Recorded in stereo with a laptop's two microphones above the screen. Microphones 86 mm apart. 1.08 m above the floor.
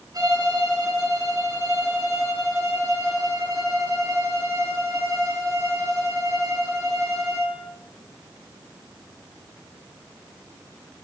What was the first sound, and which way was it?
A violin, 45° right (ahead or behind).